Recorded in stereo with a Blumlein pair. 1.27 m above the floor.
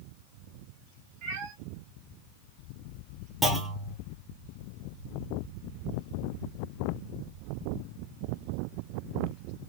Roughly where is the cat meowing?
Ahead right.